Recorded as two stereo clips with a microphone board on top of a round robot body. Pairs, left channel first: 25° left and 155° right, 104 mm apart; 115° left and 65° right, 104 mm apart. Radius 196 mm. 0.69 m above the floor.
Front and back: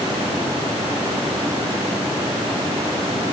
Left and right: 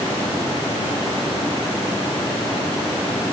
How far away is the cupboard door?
I don't hear a cupboard door.